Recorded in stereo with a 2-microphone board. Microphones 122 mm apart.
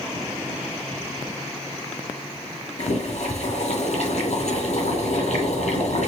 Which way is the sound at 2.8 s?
70° left (ahead or behind).